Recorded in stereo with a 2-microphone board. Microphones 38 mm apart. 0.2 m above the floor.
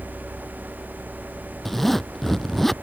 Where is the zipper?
Centre (ahead or behind).